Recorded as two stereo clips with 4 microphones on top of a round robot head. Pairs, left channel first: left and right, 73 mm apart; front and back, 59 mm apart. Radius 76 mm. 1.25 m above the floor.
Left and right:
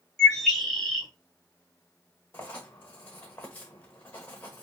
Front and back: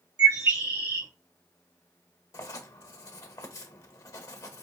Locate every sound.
0.2 s a bird: 175° left, 1.3 m
2.3 s writing: 20° left, 0.7 m